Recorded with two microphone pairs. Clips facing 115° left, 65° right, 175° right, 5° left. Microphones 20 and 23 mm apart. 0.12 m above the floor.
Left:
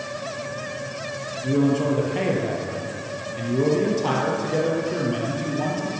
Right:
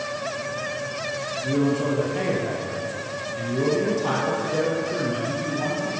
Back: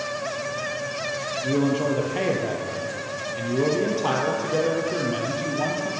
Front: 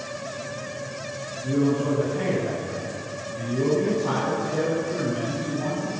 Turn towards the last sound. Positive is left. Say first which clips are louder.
# left 3 dB, even
turn(degrees=180)